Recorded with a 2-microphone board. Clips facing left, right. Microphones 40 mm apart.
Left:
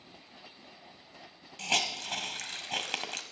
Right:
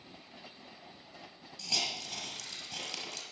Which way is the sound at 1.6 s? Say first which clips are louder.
Left 6 dB; 55° left (ahead or behind).